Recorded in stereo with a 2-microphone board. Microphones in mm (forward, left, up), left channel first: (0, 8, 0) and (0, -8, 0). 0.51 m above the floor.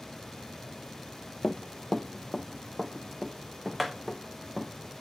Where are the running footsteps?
40° left (ahead or behind), 0.8 m; by 4.7 s 15° right (ahead or behind), 3 m.